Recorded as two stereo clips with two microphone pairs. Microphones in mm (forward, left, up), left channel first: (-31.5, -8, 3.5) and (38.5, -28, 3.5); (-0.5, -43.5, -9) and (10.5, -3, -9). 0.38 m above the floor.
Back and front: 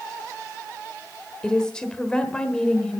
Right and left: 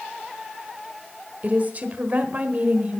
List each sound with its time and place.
1.4 s a woman speaking: 90° left, 1.1 m